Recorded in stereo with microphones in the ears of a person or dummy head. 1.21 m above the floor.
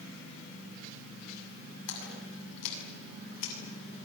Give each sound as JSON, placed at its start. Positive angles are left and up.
{"t": 1.9, "sound": "a splash", "side_deg": 75, "distance_m": 8.0}